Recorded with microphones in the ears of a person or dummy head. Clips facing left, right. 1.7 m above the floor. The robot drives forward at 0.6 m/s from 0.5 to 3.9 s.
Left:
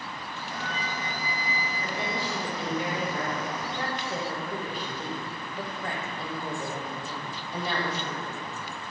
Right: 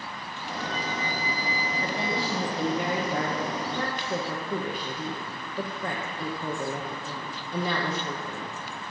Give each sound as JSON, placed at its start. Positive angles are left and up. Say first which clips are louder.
{"t": 0.5, "sound": "a flute", "louder": "right 4 dB", "side_deg": 60, "distance_m": 3.0}
{"t": 1.8, "sound": "a woman speaking", "louder": "right 3 dB", "side_deg": -35, "distance_m": 1.7}